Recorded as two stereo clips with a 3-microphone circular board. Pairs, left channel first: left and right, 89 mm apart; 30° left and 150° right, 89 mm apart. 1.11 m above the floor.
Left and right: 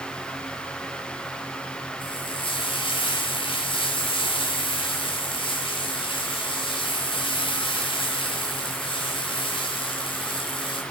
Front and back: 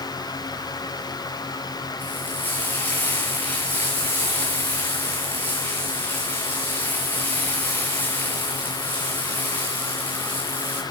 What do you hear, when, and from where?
2.0 s frying: 100° left, 7.5 m